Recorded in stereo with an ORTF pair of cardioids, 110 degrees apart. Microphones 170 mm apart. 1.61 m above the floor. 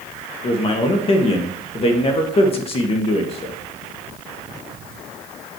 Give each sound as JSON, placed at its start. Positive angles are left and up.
{"t": 0.4, "sound": "a man speaking", "azimuth_deg": 35, "distance_m": 1.7}